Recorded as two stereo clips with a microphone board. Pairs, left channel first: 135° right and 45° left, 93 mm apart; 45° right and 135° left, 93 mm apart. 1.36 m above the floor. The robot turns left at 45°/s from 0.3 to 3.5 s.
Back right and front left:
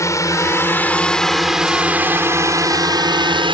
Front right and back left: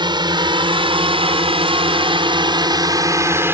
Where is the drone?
170° left; by 3.5 s 70° left.